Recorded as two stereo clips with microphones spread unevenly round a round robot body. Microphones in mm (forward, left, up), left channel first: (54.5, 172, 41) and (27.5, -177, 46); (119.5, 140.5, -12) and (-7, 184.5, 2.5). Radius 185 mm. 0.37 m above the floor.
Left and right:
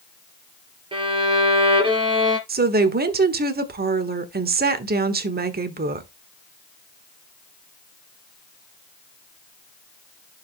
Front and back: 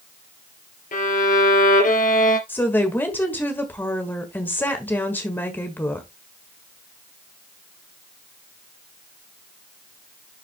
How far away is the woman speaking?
About 1.3 m.